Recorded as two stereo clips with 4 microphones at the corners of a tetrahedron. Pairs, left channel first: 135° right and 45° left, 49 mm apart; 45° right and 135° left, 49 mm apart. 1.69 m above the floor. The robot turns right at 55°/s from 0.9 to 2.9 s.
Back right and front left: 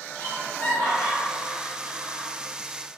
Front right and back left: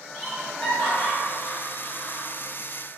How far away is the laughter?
About 0.8 m.